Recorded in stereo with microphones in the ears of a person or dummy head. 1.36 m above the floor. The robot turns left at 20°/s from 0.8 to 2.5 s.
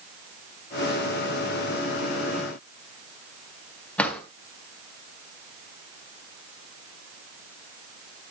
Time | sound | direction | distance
4.0 | a drawer | 10° left (ahead or behind) | 2.5 m